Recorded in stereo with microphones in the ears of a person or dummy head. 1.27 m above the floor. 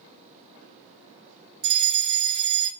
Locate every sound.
1.6 s a fire alarm: 65° right (ahead or behind), 4.5 m